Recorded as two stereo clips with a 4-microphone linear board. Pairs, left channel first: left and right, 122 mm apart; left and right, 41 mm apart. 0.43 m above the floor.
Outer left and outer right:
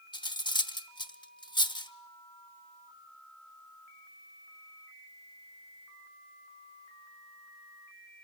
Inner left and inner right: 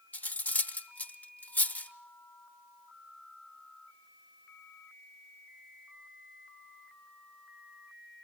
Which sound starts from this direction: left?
Cutlery clinking, at 0.1 s.